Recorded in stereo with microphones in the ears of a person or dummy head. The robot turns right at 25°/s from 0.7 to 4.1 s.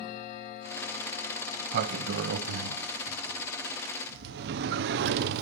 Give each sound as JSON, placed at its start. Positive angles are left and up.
{"t": 1.6, "sound": "a sliding door", "azimuth_deg": -125, "distance_m": 1.0}